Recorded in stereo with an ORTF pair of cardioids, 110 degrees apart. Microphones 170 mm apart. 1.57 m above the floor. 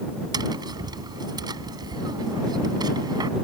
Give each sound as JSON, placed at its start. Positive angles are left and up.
{"t": 0.3, "sound": "tapping", "azimuth_deg": -25}